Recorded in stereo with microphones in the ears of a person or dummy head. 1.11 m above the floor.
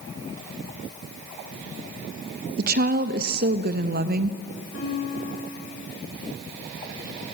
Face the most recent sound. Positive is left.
turn(degrees=70)  # may be behind; listen again after turning